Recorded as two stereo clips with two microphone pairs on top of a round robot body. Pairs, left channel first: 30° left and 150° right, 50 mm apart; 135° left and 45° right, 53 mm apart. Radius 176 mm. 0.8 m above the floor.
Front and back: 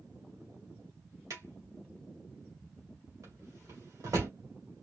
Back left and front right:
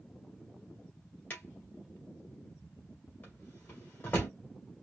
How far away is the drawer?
About 2 m.